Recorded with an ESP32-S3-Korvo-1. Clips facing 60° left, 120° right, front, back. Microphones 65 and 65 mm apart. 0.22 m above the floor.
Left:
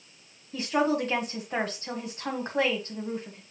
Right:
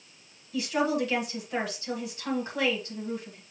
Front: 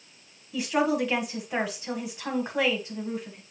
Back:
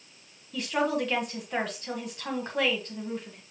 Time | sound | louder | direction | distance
0.5 | a woman speaking | left 1 dB, front 2 dB | 75° left | 1.2 m